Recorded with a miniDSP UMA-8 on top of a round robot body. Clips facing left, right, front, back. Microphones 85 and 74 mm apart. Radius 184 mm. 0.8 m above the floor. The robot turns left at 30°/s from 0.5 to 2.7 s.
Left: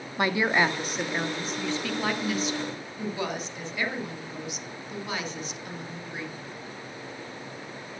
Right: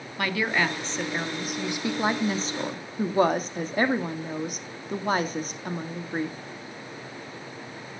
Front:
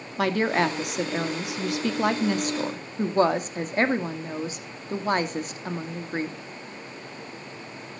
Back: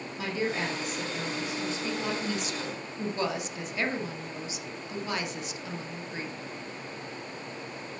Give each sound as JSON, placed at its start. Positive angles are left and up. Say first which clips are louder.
{"t": 0.2, "sound": "a woman speaking", "louder": "left 2 dB, front 8 dB", "azimuth_deg": 20, "distance_m": 2.0}